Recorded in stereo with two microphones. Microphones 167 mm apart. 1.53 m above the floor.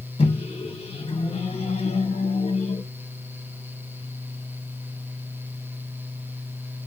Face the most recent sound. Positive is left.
turn(degrees=35)  # may be behind; listen again after turning